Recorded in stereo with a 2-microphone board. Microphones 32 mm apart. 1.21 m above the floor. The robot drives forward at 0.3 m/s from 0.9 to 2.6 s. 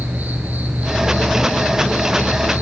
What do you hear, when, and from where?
0.0 s an insect: 65° right (ahead or behind), 3.5 m; by 2.6 s 70° right (ahead or behind), 3.5 m